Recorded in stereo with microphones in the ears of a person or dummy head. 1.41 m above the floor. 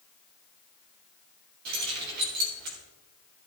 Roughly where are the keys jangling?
Right.